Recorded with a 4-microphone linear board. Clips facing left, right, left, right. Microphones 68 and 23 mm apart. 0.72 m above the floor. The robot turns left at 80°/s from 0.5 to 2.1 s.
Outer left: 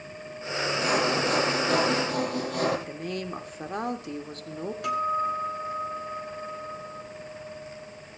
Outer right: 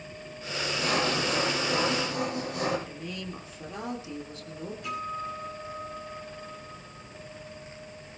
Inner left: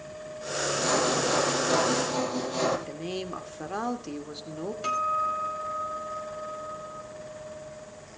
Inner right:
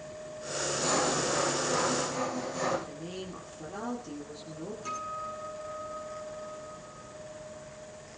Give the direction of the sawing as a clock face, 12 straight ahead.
6 o'clock.